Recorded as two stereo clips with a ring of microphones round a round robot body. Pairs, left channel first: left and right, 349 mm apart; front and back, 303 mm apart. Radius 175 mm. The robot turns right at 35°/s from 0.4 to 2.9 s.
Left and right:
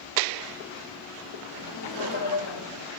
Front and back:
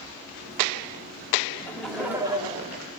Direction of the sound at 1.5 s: 75° left.